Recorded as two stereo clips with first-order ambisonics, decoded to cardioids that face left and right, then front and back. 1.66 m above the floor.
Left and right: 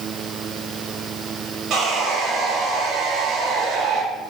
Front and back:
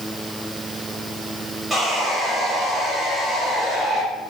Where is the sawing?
105° right, 1.4 m.